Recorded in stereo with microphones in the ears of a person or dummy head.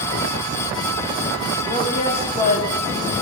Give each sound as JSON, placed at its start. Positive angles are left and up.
{"t": 1.6, "sound": "a woman speaking", "side_deg": 25, "distance_m": 3.0}